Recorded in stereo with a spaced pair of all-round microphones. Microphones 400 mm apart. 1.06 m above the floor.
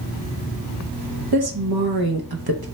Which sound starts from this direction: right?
A woman speaking, at 1.3 s.